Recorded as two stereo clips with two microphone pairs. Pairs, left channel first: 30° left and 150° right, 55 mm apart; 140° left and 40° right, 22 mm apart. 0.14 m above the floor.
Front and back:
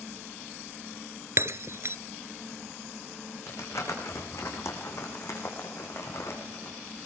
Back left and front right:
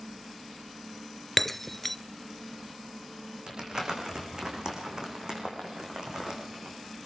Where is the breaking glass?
145° right, 0.7 m.